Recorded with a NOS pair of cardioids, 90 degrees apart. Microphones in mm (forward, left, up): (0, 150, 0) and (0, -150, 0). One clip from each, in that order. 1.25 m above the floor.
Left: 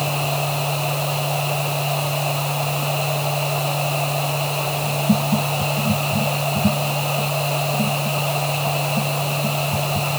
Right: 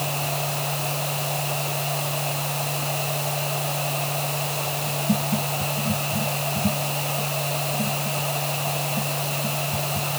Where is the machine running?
40° left.